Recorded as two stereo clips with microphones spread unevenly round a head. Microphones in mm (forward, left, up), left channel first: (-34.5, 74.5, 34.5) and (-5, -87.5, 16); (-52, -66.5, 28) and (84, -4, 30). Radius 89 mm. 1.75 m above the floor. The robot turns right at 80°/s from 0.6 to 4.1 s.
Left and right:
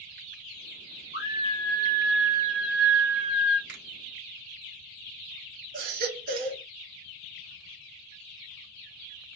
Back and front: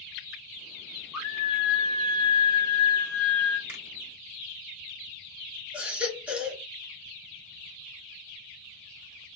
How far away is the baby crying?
About 1.6 m.